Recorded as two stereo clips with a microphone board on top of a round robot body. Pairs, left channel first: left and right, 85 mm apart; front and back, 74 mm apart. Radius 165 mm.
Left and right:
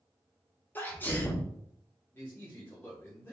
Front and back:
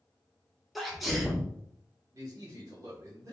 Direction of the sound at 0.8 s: 90° left.